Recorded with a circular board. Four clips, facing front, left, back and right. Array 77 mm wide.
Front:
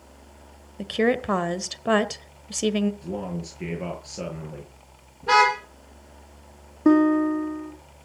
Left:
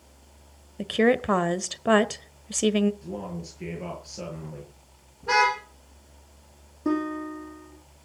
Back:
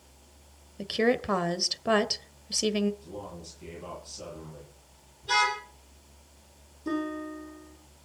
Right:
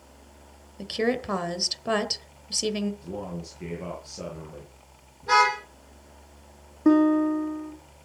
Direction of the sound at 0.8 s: 65° left.